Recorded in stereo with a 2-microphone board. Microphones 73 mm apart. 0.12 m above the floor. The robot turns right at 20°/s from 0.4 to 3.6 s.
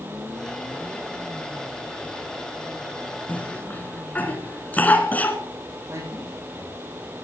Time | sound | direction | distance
3.3 | a cough | 25° left (ahead or behind) | 1.5 m
5.9 | a man speaking | 40° right (ahead or behind) | 5 m